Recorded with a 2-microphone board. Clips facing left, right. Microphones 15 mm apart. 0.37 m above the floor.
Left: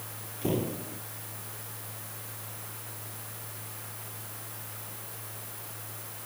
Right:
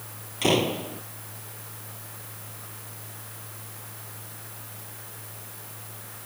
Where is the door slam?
65° right (ahead or behind).